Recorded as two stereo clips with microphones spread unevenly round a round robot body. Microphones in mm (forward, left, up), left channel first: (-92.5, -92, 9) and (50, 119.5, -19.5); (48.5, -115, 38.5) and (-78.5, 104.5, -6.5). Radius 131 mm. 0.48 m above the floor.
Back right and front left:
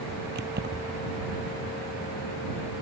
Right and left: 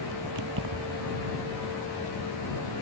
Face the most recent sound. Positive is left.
turn(degrees=105)